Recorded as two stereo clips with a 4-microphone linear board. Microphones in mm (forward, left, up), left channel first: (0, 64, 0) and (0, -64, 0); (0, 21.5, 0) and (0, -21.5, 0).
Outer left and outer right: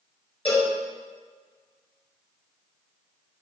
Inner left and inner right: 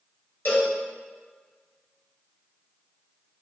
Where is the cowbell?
45° left (ahead or behind), 5 m.